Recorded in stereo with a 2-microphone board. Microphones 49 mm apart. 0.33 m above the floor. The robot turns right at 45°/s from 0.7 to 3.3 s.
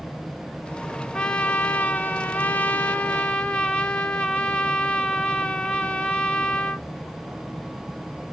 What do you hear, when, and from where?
1.1 s a trumpet: 40° left, 0.5 m; by 6.9 s 135° left, 0.5 m